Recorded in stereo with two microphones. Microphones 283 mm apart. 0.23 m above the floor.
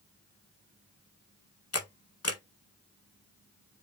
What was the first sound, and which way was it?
A camera shutter, 65° left (ahead or behind).